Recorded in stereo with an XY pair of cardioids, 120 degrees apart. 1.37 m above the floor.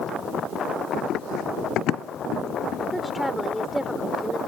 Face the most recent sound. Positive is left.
turn(degrees=5)